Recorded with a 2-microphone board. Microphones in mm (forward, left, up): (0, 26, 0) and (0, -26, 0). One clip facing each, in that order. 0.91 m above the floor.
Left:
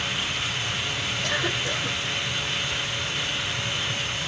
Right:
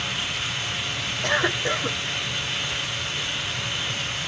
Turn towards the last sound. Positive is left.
turn(degrees=-40)  # may be behind; listen again after turning